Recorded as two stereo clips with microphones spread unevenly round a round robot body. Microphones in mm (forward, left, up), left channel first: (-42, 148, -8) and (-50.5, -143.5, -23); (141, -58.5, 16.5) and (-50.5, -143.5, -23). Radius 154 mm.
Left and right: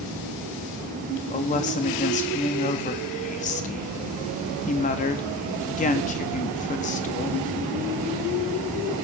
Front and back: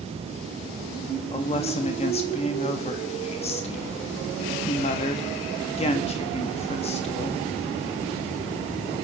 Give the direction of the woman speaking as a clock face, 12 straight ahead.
10 o'clock.